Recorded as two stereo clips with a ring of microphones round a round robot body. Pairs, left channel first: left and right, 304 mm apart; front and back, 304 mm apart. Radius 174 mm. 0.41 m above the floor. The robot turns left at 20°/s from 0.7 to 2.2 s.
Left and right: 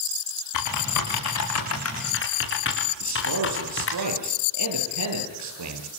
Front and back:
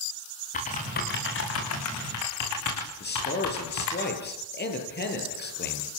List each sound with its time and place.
0.5 s typing on a keyboard: 70° left, 8 m; by 4.0 s 40° left, 8 m
3.0 s a man speaking: 55° right, 8.5 m